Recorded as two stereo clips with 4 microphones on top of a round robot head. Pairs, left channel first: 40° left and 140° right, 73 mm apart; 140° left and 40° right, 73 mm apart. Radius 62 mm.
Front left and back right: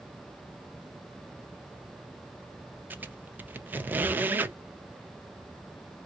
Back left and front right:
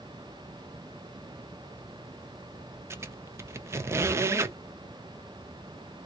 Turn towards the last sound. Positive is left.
turn(degrees=-80)